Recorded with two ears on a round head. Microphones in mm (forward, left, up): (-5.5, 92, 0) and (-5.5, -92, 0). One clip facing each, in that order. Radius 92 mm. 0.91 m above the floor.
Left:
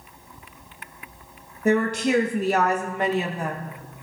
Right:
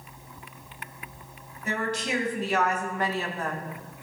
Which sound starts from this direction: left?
A woman speaking, at 1.6 s.